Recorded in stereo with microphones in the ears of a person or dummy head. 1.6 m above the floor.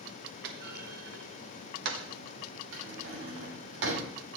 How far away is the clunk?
About 1.2 m.